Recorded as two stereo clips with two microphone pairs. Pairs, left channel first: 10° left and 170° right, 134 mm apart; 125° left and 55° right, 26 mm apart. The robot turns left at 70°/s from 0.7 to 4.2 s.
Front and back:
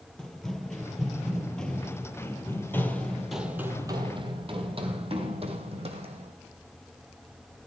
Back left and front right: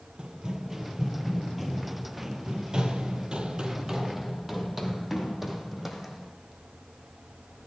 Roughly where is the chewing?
I don't hear chewing.